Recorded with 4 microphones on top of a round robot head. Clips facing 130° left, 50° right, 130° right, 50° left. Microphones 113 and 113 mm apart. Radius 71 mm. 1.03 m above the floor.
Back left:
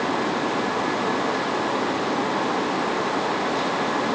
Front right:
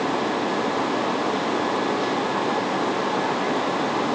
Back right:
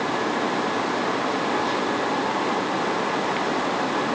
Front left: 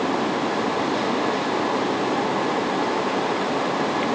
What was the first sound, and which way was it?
Only background noise.